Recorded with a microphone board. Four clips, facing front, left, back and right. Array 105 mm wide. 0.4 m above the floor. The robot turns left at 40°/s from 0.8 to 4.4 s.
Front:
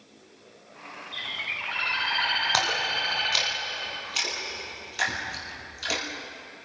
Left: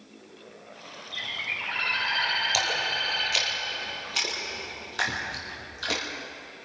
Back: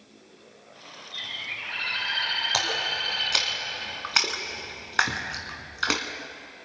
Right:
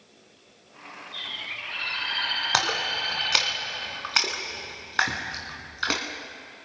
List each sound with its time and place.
1.1 s a bird: 55° left, 3.5 m; by 3.5 s 40° right, 3.5 m
2.5 s a splash: 75° right, 2 m; by 6.0 s 145° right, 2 m